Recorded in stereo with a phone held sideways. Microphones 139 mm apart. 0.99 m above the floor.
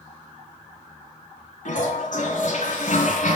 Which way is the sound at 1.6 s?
65° left (ahead or behind).